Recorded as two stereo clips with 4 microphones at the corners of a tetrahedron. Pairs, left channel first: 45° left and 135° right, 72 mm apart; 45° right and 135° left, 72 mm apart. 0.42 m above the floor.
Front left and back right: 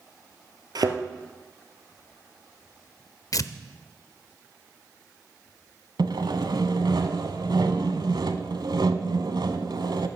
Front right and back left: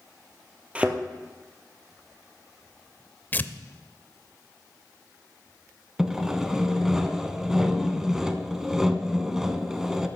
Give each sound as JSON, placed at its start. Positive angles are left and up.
{"t": 0.8, "sound": "a thud", "azimuth_deg": -155, "distance_m": 1.3}
{"t": 3.3, "sound": "tearing paper", "azimuth_deg": 15, "distance_m": 0.5}
{"t": 6.0, "sound": "sawing", "azimuth_deg": -140, "distance_m": 0.8}